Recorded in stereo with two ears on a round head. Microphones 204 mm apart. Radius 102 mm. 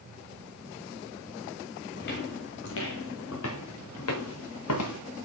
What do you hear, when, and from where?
2.0 s footsteps: 50° left (ahead or behind), 2.5 m; by 5.0 s 80° left, 3.5 m